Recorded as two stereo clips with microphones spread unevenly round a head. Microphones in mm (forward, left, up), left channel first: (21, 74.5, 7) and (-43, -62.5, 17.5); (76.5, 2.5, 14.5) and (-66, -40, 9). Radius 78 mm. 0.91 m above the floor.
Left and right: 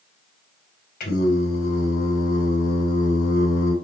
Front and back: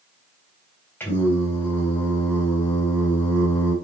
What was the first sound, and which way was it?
Singing, 95° left.